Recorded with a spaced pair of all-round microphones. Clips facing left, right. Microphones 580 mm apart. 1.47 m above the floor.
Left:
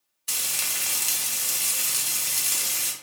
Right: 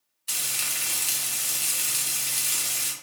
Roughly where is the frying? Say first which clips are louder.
Left 1 dB; left.